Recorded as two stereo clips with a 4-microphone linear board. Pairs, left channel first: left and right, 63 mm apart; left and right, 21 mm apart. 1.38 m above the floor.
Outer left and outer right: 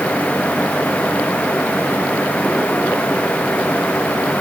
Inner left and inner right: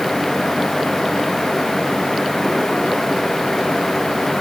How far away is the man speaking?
I don't hear a man speaking.